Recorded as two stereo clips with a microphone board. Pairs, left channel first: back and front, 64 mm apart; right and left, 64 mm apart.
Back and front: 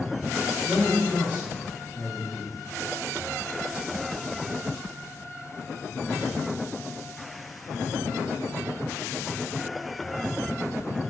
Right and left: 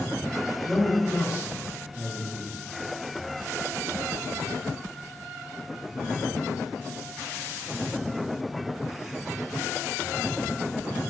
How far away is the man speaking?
About 1.5 m.